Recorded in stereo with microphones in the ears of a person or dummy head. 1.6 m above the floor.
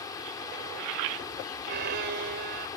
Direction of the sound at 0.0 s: 25° left (ahead or behind).